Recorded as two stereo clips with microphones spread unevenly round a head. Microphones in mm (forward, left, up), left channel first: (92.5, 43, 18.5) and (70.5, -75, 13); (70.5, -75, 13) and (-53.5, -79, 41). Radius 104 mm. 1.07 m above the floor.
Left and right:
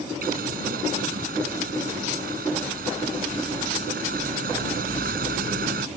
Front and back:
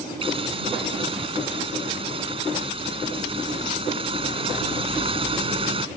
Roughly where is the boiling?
Behind right.